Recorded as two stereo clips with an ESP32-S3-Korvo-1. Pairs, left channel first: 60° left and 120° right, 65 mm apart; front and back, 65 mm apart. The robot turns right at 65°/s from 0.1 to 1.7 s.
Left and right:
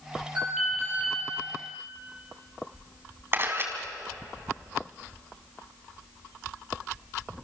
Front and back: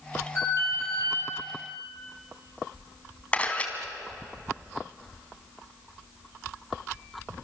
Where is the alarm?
50° right, 8.5 m; by 1.2 s 5° left, 8.5 m.